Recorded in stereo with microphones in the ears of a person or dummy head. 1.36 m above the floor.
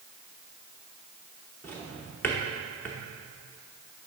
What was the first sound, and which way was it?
A drawer, 5° left (ahead or behind).